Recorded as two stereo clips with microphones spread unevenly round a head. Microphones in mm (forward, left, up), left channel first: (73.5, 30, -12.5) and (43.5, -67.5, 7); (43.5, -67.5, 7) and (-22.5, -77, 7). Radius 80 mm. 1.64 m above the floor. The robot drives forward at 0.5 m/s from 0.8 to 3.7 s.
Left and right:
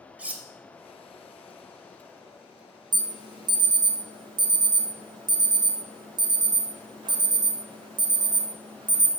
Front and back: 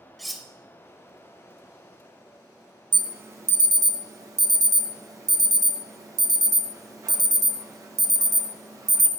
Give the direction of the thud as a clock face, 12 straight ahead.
No thud in this recording.